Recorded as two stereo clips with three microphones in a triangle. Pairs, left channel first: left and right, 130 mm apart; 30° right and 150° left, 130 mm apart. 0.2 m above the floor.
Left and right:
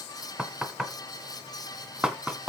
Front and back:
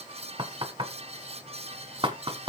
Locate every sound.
0.4 s knocking: 170° right, 1.8 m